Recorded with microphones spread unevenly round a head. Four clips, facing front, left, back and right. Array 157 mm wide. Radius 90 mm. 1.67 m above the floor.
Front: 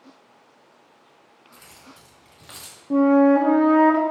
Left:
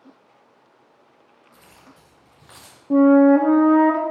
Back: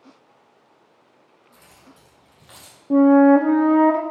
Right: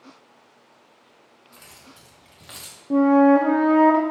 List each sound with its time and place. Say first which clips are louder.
1.5 s keys jangling: right 1 dB, front 2 dB; 55° right, 3.5 m; by 2.8 s 45° right, 2 m
2.9 s a flute: left 2 dB, back 3 dB; straight behind, 0.6 m